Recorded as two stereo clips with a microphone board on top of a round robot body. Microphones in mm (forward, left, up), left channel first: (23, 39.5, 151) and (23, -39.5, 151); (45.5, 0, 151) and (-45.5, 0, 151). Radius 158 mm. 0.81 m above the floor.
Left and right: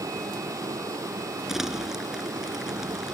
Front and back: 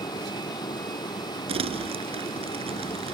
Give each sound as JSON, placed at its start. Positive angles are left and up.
{"t": 0.0, "sound": "a vehicle", "azimuth_deg": -45}
{"t": 1.5, "sound": "crumpling", "azimuth_deg": -175}